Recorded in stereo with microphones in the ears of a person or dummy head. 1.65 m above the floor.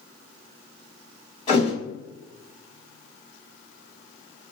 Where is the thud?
30° left (ahead or behind), 1.9 m.